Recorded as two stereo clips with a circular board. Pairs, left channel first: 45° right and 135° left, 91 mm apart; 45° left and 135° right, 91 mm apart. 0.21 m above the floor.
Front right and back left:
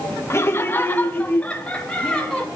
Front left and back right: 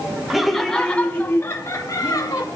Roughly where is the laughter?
Ahead right.